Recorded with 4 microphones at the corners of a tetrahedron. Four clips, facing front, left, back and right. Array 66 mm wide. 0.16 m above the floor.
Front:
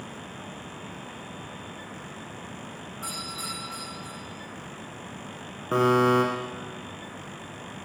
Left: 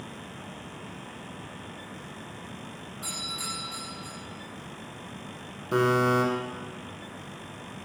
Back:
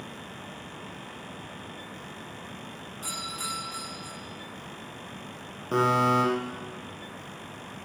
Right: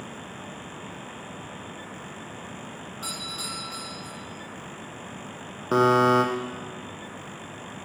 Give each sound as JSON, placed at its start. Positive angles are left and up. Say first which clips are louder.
{"t": 3.0, "sound": "a doorbell", "louder": "even, back 1 dB", "azimuth_deg": -65, "distance_m": 7.5}
{"t": 5.7, "sound": "a buzzer", "louder": "right 4 dB, front 2 dB", "azimuth_deg": -80, "distance_m": 4.0}